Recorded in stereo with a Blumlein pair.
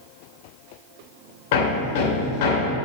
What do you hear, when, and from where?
1.5 s hammering: 50° left, 2.5 m